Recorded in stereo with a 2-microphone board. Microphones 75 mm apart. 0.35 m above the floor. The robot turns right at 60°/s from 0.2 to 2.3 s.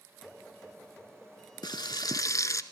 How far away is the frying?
About 0.7 m.